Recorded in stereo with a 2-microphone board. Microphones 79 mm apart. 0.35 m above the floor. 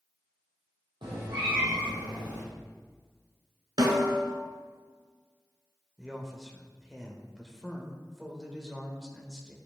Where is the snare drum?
65° right (ahead or behind), 1.4 m.